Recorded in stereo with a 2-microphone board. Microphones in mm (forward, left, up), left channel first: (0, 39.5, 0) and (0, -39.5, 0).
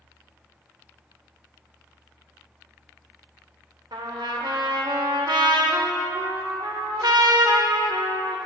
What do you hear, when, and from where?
3.9 s a trumpet: 65° right (ahead or behind), 0.6 m